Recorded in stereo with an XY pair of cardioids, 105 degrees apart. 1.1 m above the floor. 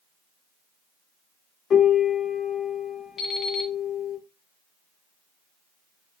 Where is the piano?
55° left, 1.9 m.